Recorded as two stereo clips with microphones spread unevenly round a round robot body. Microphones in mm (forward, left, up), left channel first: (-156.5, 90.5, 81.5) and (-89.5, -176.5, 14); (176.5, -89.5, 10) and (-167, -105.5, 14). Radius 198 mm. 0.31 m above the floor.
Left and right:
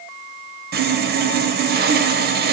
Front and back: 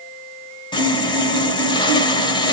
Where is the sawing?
70° right, 0.8 m.